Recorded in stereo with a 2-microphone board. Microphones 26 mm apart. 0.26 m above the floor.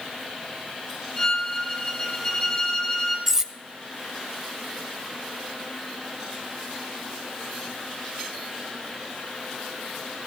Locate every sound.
1.2 s a violin: 20° left (ahead or behind), 1.7 m
3.3 s cutlery clinking: 20° right (ahead or behind), 0.5 m